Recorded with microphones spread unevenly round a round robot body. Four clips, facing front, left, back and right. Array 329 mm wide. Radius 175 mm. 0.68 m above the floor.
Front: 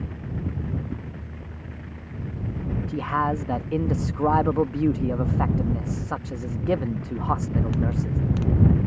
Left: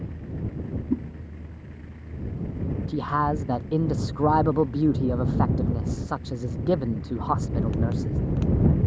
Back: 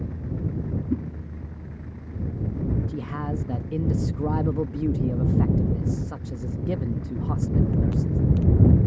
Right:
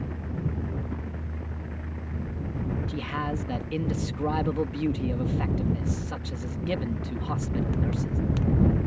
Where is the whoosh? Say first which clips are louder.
Left 10 dB, back 8 dB; 135° left.